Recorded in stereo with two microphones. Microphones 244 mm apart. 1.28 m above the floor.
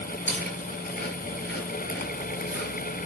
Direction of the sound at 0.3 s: 50° left (ahead or behind).